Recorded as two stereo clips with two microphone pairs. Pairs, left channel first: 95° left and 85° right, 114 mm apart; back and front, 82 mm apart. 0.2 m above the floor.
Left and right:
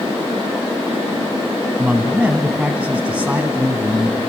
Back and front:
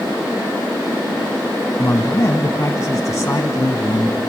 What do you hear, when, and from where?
1.8 s a man speaking: 160° right, 1.6 m